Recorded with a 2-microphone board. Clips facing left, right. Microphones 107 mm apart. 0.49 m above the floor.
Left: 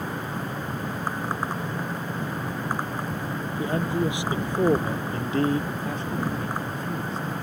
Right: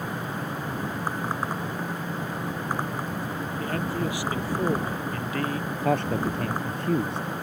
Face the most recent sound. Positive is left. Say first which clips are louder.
# right 5 dB
turn(degrees=-60)  # may be behind; listen again after turning